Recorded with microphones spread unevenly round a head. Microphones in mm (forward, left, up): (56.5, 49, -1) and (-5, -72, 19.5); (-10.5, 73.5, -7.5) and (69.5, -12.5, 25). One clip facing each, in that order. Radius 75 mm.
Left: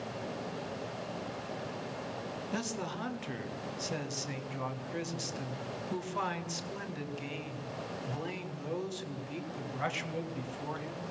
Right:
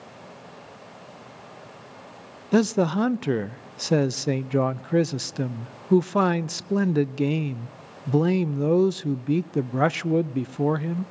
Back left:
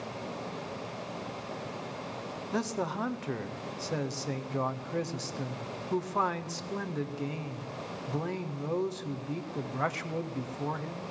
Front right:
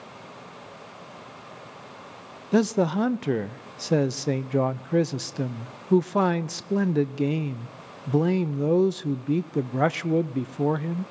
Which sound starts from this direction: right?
A man speaking, at 2.5 s.